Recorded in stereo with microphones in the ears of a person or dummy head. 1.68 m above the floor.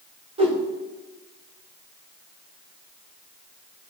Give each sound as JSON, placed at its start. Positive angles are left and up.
{"t": 0.4, "sound": "a whoosh", "side_deg": -25, "distance_m": 1.8}